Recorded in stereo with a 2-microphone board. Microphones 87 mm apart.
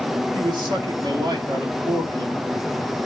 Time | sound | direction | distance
0.3 | a man speaking | 60° right (ahead or behind) | 3 m